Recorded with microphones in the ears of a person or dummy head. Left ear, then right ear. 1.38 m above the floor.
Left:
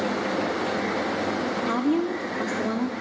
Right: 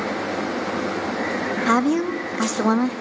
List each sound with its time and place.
1.7 s a woman speaking: 55° right (ahead or behind), 0.6 m